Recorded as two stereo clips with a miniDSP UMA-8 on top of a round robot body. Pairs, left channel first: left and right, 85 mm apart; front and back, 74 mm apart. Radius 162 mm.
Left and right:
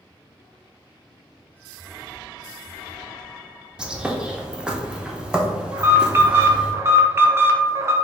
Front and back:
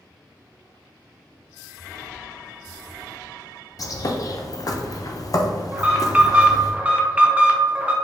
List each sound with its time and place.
3.8 s a bird: 10° right, 0.7 m
5.7 s an alarm: 120° right, 0.8 m